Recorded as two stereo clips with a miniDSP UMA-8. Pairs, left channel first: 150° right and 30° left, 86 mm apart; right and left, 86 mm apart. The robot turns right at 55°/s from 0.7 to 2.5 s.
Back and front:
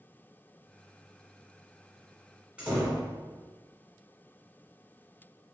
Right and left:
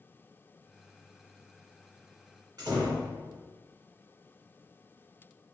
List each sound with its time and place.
2.6 s a door slam: 100° left, 1.4 m